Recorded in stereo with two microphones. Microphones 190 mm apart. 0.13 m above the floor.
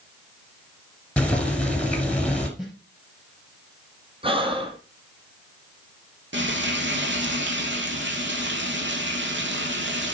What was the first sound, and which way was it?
Boiling, 5° left (ahead or behind).